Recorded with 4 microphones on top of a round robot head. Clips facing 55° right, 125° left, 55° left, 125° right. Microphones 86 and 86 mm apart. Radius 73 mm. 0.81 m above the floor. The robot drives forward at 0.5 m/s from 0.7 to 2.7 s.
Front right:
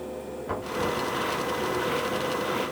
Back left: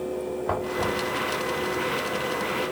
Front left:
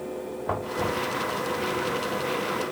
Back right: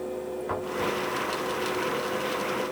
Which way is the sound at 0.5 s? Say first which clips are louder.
Back left 1 dB, front left 2 dB; 95° left.